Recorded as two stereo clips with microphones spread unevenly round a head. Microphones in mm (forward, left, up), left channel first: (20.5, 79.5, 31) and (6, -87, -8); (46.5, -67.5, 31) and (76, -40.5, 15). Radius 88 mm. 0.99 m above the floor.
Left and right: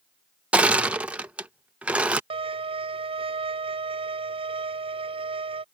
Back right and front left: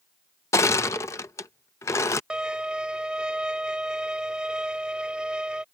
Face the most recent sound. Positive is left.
turn(degrees=-35)